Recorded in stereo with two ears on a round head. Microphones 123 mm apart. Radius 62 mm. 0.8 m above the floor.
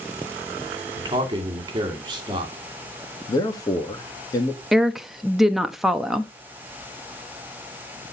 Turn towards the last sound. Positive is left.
turn(degrees=0)  # may be behind; listen again after turning